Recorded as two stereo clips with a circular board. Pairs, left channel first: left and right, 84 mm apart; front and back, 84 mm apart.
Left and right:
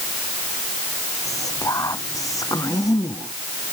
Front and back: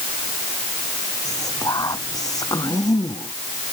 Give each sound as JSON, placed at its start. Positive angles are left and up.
{"t": 1.2, "sound": "whispering", "azimuth_deg": 45}